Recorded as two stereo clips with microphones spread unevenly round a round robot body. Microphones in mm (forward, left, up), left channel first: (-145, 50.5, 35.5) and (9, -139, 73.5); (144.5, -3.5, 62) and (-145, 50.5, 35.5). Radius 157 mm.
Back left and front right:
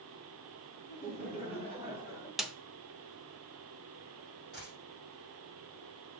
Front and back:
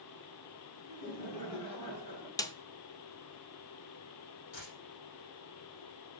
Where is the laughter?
15° left, 4.5 m; by 2.3 s 25° left, 5.5 m.